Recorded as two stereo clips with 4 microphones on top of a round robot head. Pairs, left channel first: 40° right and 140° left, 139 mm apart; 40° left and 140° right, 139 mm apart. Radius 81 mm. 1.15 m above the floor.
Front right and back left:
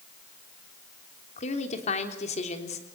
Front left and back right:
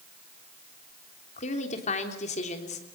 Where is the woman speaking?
Straight ahead, 3.5 m.